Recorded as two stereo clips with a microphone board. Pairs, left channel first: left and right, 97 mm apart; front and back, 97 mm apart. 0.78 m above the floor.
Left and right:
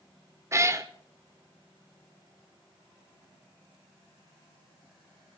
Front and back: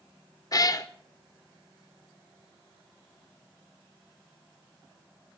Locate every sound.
0.5 s a cat meowing: 35° right, 0.5 m